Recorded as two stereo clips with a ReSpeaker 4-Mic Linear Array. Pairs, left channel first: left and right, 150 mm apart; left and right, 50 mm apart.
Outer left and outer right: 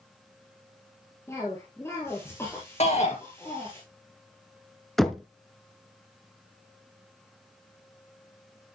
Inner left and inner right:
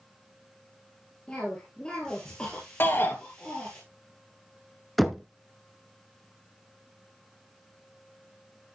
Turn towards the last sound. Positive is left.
turn(degrees=0)  # may be behind; listen again after turning